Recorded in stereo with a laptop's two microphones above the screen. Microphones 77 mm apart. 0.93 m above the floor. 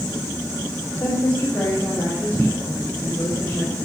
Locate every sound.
1.0 s a woman speaking: 25° left (ahead or behind), 3 m